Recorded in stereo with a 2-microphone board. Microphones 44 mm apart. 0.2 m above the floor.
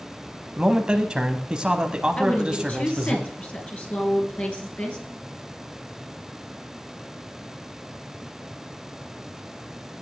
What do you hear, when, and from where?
0.6 s a man speaking: 20° right (ahead or behind), 1.0 m
2.2 s a woman speaking: 35° left (ahead or behind), 3.5 m